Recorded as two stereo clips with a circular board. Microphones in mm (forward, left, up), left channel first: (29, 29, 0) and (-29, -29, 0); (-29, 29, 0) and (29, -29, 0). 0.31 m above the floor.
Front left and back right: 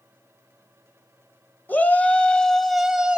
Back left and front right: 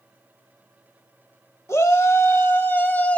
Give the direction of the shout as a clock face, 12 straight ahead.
9 o'clock.